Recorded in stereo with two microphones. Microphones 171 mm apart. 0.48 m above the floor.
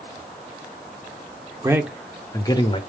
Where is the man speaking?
20° right (ahead or behind), 0.8 m; by 2.8 s 30° left (ahead or behind), 1.1 m.